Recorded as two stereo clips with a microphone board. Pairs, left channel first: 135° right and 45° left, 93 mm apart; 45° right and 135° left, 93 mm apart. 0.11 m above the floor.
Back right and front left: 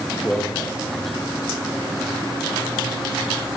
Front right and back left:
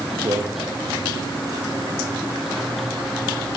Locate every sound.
0.2 s a man speaking: 150° left, 2.5 m